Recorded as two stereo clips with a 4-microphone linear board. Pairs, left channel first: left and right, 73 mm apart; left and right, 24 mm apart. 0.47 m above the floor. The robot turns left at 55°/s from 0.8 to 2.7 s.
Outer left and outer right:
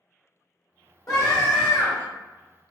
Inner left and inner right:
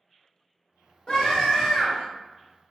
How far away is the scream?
About 1.5 m.